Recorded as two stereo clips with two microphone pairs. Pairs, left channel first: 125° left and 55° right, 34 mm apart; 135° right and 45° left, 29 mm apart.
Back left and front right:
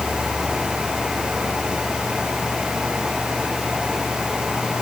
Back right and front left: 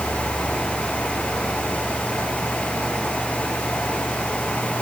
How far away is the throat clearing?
No throat clearing in this recording.